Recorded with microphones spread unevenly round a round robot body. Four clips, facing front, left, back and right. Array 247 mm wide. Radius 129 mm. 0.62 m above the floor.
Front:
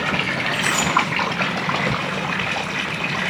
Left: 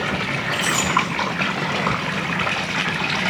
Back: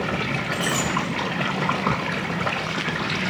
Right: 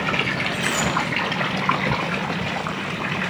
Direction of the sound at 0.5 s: 175° left.